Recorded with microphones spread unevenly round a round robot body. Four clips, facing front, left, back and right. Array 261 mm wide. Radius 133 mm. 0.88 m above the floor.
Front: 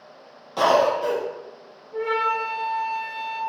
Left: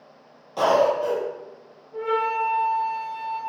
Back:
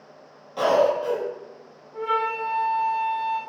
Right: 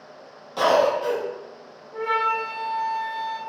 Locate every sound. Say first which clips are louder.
0.6 s a cough: even, front 1 dB; 5° right, 0.7 m
1.9 s a flute: even, front 2 dB; 55° right, 1.9 m